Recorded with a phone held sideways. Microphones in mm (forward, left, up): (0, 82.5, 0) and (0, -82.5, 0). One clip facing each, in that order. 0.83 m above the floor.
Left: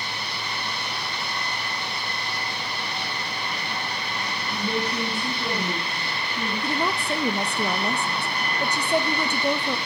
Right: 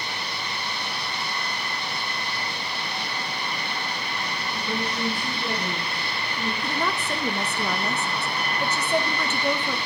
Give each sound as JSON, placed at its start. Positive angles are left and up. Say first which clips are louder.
{"t": 4.5, "sound": "a woman speaking", "louder": "left 3 dB", "side_deg": 80, "distance_m": 8.5}
{"t": 6.6, "sound": "a woman speaking", "louder": "left 3 dB", "side_deg": 15, "distance_m": 0.7}